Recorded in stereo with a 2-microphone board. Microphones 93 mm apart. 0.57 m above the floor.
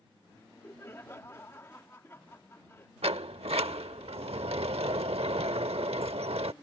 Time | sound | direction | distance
0.3 | laughter | 25° left (ahead or behind) | ?
3.0 | a sliding door | 85° right | ?